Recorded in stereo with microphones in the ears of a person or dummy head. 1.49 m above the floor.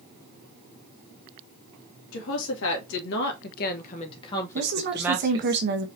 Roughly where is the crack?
I don't hear a crack.